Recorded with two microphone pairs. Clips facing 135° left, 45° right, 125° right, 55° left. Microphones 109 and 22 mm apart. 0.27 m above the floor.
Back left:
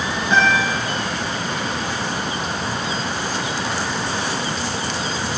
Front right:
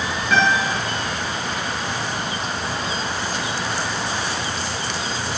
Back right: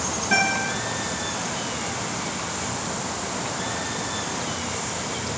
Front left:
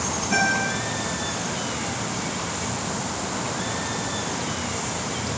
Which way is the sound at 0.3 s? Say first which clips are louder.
Back left 1 dB, even; 155° right.